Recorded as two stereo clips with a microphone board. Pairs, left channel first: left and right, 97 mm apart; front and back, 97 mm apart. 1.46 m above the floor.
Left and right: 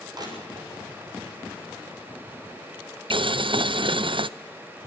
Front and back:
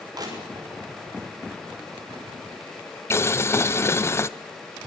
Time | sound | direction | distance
0.1 | crushing | 135° right | 6.5 m
3.1 | boiling | 60° right | 0.6 m